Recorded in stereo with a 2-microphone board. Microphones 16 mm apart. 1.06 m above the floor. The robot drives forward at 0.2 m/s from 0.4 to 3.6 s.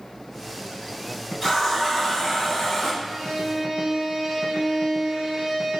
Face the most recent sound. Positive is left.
turn(degrees=-70)  # may be behind; listen again after turning